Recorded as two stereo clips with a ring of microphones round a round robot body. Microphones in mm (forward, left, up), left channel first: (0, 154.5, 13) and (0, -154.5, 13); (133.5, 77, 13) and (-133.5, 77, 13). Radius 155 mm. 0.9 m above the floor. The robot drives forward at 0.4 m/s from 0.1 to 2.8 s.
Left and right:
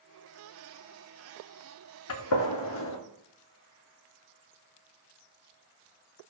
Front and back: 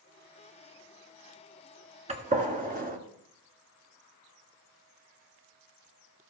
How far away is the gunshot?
About 1.8 m.